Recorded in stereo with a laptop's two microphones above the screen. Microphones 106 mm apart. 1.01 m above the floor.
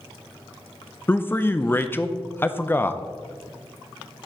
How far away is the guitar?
I don't hear a guitar.